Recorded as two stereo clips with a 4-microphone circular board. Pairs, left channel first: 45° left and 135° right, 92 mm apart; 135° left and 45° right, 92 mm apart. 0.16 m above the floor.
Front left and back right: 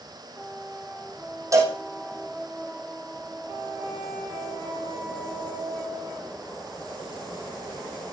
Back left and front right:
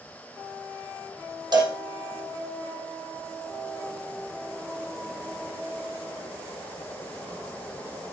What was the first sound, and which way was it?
A cowbell, 80° right.